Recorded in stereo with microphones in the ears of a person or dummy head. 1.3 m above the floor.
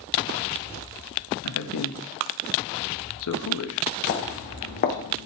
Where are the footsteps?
45° left (ahead or behind), 2.5 m; by 5.3 s 50° left (ahead or behind), 3 m.